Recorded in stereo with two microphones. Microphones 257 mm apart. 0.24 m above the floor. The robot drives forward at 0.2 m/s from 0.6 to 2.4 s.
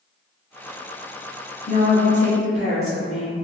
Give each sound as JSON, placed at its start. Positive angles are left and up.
{"t": 1.7, "sound": "a woman speaking", "side_deg": -25, "distance_m": 1.3}